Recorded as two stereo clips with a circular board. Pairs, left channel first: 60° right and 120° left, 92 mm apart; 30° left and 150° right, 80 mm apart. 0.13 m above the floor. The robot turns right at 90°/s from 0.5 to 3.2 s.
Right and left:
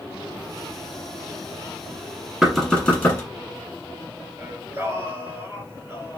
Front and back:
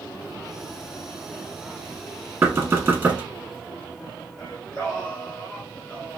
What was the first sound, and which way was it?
Knocking, 160° right.